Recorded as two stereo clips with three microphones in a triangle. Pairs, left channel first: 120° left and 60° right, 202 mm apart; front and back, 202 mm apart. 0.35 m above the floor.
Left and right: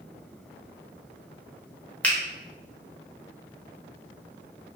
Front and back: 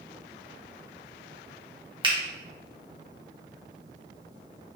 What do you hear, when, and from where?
2.0 s a finger snap: 165° right, 0.6 m